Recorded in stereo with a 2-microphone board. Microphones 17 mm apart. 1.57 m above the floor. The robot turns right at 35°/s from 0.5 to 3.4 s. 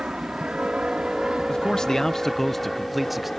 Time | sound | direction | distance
0.0 | an aircraft | 70° right (ahead or behind) | ?
1.5 | a man speaking | 130° left | ?